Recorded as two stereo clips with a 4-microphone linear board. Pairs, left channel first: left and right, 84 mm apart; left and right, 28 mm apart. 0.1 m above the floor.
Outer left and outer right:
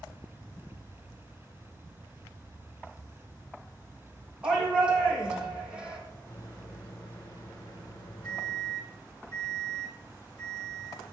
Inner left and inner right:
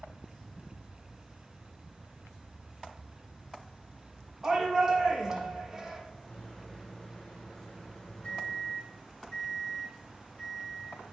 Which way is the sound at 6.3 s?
55° left (ahead or behind).